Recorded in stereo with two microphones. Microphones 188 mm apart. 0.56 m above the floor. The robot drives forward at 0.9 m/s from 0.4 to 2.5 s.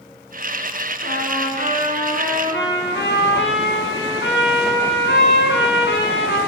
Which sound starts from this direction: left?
A trumpet, at 1.0 s.